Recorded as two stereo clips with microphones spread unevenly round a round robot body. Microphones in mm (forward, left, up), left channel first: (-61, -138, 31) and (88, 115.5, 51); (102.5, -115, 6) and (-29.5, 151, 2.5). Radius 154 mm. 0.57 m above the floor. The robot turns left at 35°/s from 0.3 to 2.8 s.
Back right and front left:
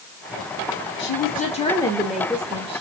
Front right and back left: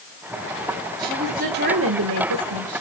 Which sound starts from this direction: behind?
A woman speaking, at 1.0 s.